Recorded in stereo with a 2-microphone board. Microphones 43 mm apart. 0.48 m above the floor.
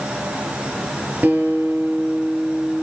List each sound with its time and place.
1.2 s a guitar: 40° right (ahead or behind), 8.5 m